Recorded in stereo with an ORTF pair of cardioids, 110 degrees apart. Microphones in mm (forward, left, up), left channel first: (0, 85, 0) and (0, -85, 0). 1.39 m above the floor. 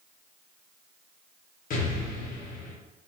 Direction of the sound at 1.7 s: 55° left.